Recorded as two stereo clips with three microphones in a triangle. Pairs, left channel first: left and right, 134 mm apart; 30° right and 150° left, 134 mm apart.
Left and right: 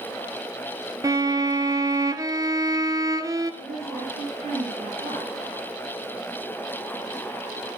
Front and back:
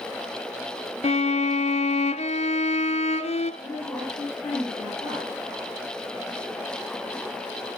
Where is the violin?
35° right, 1.0 m.